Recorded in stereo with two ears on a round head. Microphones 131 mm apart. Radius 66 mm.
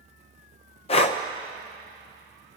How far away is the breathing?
About 0.6 m.